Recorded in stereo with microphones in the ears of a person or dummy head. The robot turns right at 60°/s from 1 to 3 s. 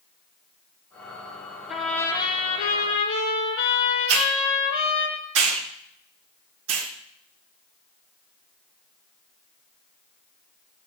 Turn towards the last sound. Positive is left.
turn(degrees=-80)